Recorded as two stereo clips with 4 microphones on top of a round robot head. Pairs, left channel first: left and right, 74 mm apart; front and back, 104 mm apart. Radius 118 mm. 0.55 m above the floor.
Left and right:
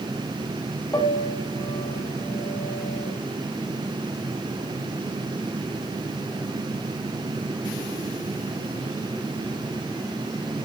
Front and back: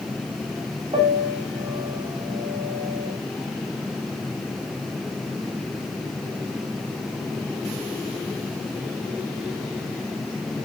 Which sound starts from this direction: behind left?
A piano, at 0.9 s.